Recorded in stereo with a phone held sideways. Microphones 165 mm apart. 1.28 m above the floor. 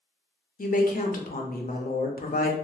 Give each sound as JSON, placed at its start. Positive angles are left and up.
{"t": 0.6, "sound": "a woman speaking", "side_deg": 60, "distance_m": 0.6}